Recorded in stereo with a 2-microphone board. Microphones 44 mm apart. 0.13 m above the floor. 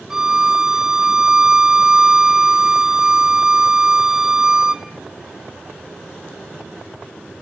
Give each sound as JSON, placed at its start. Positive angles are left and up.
{"t": 0.1, "sound": "a violin", "side_deg": -15, "distance_m": 0.6}